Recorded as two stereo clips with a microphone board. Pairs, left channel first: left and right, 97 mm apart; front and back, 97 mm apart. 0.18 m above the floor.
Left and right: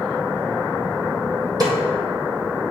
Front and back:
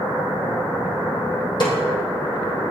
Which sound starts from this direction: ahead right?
A snare drum, at 1.6 s.